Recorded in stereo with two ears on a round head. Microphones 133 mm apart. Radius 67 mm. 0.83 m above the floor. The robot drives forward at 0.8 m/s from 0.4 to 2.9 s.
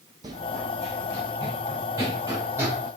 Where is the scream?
I don't hear a scream.